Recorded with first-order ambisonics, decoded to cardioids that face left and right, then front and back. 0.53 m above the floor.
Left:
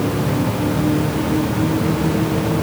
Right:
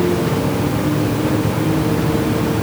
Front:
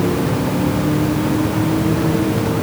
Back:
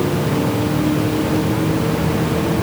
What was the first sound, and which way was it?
Only background noise.